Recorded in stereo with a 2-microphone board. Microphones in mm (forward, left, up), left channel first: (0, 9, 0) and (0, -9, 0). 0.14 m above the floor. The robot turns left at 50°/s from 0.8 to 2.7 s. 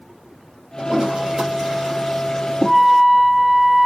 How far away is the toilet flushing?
About 3.5 m.